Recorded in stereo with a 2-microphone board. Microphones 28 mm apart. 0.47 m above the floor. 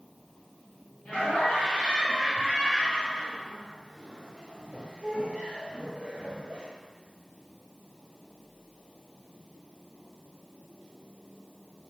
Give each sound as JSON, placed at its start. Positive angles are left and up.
{"t": 1.1, "sound": "laughter", "side_deg": 30, "distance_m": 2.0}